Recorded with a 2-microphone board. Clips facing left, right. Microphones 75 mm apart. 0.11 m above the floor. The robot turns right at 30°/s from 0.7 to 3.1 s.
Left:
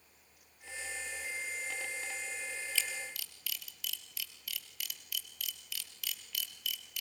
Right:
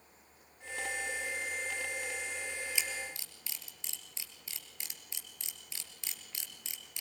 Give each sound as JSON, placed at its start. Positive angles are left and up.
{"t": 2.8, "sound": "a camera shutter", "side_deg": -20, "distance_m": 2.5}